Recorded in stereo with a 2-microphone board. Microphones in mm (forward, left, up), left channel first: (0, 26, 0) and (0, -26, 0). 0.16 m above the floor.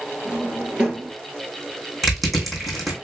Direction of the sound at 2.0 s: Centre (ahead or behind).